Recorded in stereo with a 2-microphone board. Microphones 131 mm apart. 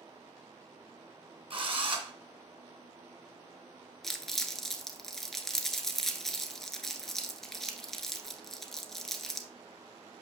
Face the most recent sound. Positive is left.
turn(degrees=5)  # may be behind; listen again after turning